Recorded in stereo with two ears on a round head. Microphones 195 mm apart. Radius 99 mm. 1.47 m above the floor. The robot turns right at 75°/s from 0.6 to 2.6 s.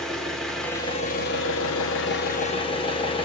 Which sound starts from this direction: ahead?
An engine running, at 0.0 s.